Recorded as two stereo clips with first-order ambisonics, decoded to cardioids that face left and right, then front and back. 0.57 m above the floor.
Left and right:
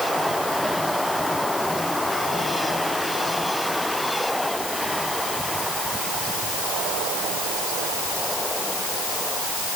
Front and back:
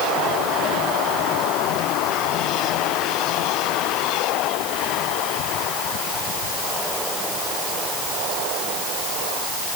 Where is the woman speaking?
I don't hear a woman speaking.